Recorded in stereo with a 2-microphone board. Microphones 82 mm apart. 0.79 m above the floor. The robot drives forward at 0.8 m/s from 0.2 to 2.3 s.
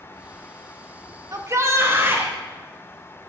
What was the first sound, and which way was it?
A shout, 40° right (ahead or behind).